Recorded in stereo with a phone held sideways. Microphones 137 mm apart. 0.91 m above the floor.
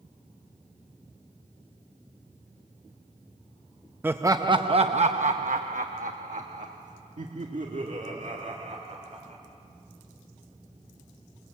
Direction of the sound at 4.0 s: 15° right (ahead or behind).